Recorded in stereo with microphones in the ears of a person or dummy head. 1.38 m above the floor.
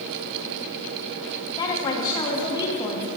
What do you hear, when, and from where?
1.6 s a woman speaking: 25° left (ahead or behind), 0.9 m